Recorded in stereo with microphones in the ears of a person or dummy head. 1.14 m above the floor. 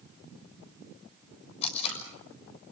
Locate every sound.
1.6 s tape being pulled: 35° left (ahead or behind), 6.5 m